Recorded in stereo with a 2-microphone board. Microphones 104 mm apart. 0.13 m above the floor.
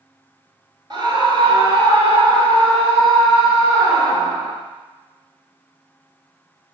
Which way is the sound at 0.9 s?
45° right (ahead or behind).